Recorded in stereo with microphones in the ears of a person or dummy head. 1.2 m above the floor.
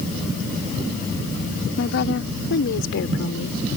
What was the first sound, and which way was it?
A woman speaking, 65° left (ahead or behind).